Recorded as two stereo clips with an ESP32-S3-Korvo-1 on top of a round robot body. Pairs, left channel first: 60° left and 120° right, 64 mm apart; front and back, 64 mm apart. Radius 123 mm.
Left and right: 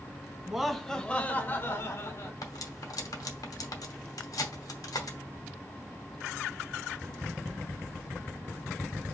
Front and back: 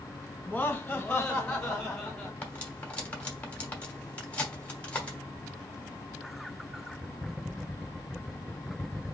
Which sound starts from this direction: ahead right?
Laughter, at 0.5 s.